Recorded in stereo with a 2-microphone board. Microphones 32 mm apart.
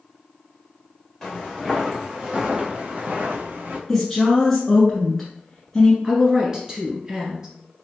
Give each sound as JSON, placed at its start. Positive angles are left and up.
{"t": 1.2, "sound": "footsteps", "side_deg": 10, "distance_m": 1.3}
{"t": 3.9, "sound": "a woman speaking", "side_deg": 5, "distance_m": 1.1}
{"t": 6.0, "sound": "a woman speaking", "side_deg": -20, "distance_m": 1.3}